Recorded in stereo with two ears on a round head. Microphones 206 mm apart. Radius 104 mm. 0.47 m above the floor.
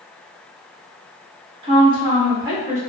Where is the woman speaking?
20° right (ahead or behind), 0.7 m; by 2.8 s 15° right (ahead or behind), 1.0 m.